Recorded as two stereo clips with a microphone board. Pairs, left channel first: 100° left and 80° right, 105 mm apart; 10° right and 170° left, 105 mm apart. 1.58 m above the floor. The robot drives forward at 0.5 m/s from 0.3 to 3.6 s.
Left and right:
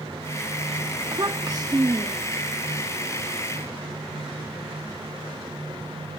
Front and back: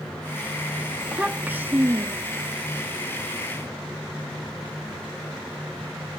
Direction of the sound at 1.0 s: 110° right.